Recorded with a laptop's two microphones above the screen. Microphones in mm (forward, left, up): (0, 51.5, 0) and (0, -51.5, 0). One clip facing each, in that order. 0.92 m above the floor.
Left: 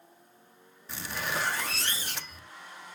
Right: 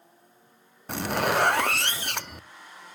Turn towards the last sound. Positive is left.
turn(degrees=-65)  # may be behind; listen again after turning